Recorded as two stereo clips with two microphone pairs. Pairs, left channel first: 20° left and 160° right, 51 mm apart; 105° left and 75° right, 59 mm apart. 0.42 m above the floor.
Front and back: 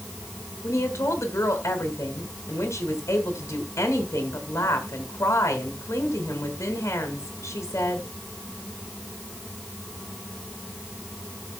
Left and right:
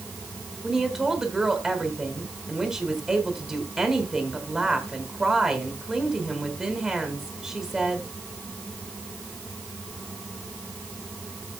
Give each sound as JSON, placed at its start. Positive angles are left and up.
{"t": 0.6, "sound": "a woman speaking", "azimuth_deg": 5, "distance_m": 2.5}